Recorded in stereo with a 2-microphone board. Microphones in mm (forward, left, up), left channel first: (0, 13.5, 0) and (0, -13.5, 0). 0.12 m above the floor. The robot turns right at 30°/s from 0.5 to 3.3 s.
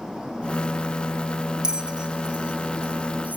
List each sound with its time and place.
1.6 s a bell: 25° right (ahead or behind), 0.7 m; by 3.4 s 65° right (ahead or behind), 0.7 m